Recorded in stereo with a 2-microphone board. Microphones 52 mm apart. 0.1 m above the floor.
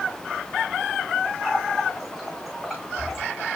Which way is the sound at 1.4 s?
Centre (ahead or behind).